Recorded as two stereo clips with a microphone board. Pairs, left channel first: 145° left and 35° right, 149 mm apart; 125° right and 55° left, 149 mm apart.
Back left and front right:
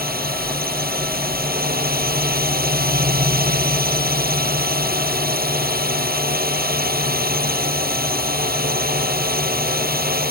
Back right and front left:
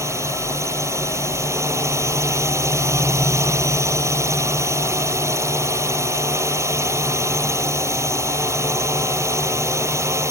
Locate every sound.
0.0 s a drone: 15° right